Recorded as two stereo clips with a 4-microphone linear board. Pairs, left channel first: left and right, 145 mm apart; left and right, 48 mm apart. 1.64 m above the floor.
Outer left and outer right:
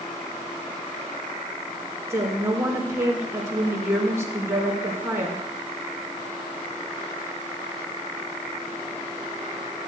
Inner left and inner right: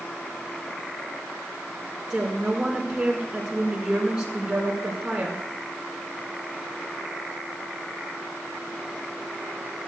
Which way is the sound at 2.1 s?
20° right (ahead or behind).